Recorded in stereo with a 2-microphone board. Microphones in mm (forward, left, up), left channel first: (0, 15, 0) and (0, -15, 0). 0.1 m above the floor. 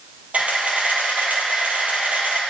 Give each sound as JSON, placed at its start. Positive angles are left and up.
{"t": 0.3, "sound": "a camera shutter", "side_deg": -50, "distance_m": 2.5}